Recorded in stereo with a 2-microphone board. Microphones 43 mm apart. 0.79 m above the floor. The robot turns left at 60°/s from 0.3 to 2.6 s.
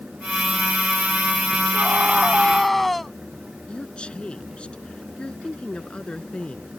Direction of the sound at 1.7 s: 130° right.